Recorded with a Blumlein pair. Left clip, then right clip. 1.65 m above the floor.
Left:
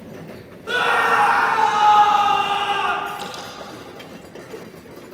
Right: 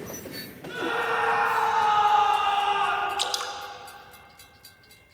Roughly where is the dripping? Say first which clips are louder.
Right 3 dB; ahead right.